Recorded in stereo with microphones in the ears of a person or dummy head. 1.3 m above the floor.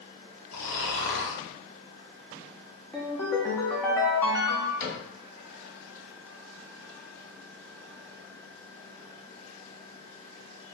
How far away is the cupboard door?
About 1.6 m.